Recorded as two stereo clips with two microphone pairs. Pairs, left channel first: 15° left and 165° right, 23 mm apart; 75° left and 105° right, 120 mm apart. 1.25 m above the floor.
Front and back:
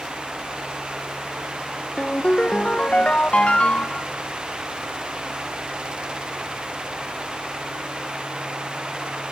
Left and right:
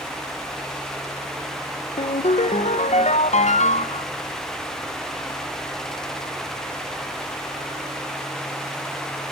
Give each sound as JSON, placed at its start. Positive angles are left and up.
{"t": 2.0, "sound": "a ringtone", "azimuth_deg": 55, "distance_m": 0.5}